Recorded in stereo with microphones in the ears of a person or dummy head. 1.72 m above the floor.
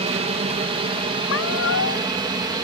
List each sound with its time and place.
0.0 s an aircraft: 35° right (ahead or behind); by 2.6 s 25° right (ahead or behind)
1.3 s a cat meowing: 75° left (ahead or behind)